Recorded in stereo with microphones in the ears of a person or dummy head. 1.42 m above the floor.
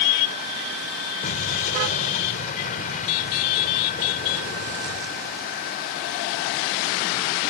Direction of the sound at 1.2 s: 40° left (ahead or behind).